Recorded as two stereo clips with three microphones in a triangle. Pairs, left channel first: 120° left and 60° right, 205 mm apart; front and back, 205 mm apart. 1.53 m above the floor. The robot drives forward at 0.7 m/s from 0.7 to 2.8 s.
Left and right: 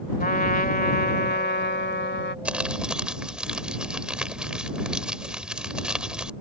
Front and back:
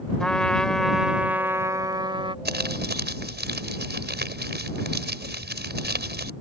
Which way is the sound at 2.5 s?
145° right.